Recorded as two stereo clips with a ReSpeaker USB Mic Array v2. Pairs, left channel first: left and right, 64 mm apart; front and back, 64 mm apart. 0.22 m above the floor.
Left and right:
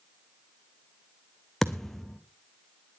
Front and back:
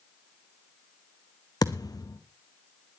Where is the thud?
5° left, 1.8 m.